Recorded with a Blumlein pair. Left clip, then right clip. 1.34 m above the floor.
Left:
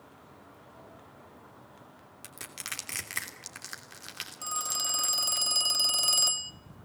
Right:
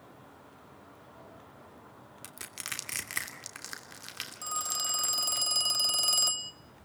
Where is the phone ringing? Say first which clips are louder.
Left 1 dB; 5° left, 0.9 m.